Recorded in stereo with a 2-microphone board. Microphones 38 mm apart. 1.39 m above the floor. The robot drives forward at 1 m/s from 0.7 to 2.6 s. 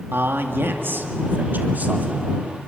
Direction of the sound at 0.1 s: 70° right (ahead or behind).